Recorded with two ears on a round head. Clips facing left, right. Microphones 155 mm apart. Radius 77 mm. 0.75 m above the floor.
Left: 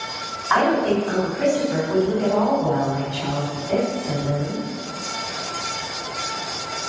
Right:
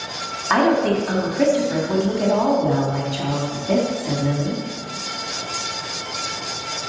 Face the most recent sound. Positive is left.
turn(degrees=-75)  # may be behind; listen again after turning